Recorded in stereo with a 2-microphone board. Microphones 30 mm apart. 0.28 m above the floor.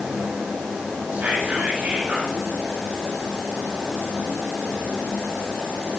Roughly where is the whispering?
Right.